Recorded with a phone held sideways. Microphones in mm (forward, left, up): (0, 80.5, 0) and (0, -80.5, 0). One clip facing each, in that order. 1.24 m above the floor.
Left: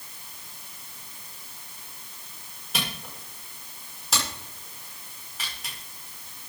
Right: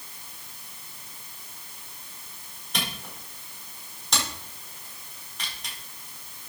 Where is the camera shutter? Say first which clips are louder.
Even; 5° left (ahead or behind), 5 m.